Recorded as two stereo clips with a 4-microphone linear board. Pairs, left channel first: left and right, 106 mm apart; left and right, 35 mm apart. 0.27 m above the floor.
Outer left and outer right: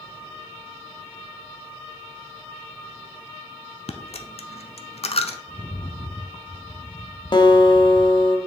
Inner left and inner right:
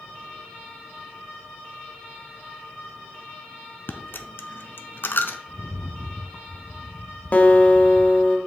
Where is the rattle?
40° left (ahead or behind), 0.8 m.